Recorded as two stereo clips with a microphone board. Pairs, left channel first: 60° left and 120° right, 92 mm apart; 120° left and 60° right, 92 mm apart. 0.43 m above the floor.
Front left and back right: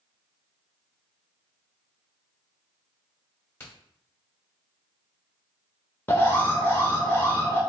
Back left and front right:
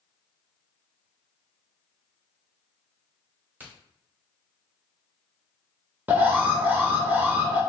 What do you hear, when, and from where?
3.6 s a crack: straight ahead, 1.9 m
6.1 s an alarm: 5° left, 0.8 m